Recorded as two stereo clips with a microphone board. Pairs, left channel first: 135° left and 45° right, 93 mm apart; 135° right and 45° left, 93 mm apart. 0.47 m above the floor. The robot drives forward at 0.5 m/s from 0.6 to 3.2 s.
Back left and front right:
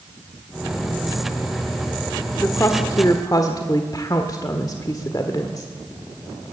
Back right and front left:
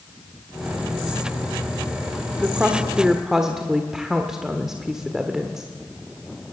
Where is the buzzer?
No buzzer in this recording.